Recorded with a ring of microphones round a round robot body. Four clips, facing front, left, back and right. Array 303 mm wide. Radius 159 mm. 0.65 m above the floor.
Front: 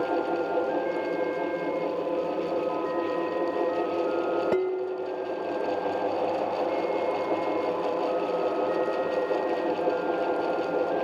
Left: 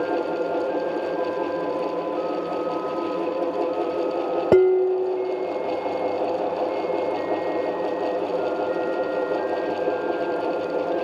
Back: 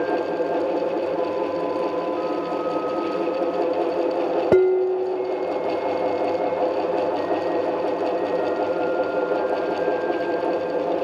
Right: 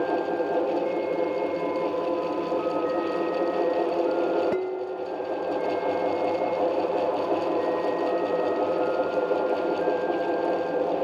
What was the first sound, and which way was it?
Dishes clattering, 130° left.